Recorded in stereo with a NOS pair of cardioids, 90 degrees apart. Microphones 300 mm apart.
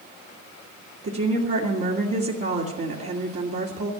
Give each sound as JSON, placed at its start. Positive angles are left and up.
{"t": 1.0, "sound": "a woman speaking", "azimuth_deg": -50, "distance_m": 2.5}